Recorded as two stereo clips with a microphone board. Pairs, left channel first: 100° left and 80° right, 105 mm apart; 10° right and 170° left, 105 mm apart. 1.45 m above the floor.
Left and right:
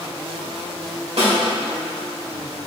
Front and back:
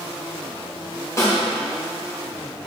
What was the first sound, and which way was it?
A snare drum, 70° right.